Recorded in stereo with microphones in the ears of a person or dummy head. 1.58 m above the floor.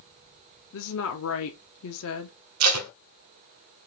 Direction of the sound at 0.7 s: 70° left (ahead or behind).